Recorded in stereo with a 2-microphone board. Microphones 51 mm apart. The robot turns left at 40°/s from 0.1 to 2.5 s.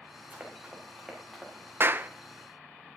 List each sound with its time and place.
0.3 s running footsteps: 35° right (ahead or behind), 4.5 m; by 1.7 s 15° left (ahead or behind), 5.5 m
1.8 s a clap: 50° right (ahead or behind), 0.6 m; by 2.1 s 35° right (ahead or behind), 0.6 m